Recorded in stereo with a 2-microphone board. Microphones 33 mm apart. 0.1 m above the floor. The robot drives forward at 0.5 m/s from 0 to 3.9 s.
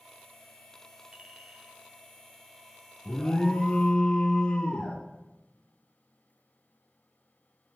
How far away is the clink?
About 1.1 m.